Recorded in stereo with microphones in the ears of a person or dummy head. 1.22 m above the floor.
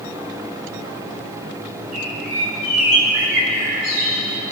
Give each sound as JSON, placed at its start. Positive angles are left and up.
{"t": 1.9, "sound": "a bird", "side_deg": -45, "distance_m": 6.5}